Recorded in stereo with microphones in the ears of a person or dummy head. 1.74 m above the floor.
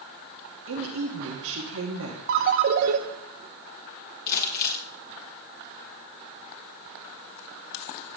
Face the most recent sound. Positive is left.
turn(degrees=50)  # may be behind; listen again after turning